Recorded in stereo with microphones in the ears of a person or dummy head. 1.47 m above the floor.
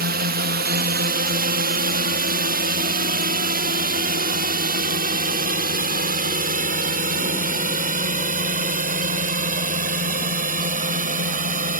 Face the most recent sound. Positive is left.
turn(degrees=-45)  # may be behind; listen again after turning